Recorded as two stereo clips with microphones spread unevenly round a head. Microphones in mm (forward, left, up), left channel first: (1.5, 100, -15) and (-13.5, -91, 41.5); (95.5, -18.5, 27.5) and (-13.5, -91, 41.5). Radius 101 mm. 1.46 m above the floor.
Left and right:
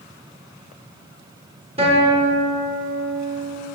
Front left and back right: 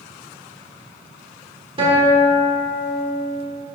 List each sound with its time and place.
1.8 s a guitar: 120° right, 1.4 m